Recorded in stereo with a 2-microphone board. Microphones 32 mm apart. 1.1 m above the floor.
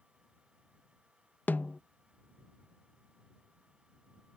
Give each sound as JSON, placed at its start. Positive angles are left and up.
{"t": 1.5, "sound": "a snare drum", "side_deg": 75}